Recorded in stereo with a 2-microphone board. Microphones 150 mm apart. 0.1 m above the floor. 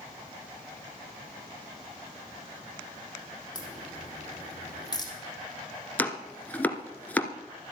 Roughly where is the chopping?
Centre.